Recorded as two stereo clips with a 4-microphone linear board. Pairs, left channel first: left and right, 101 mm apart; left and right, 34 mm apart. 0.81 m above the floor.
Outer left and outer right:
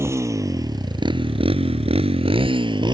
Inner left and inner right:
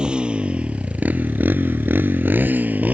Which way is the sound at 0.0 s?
30° right (ahead or behind).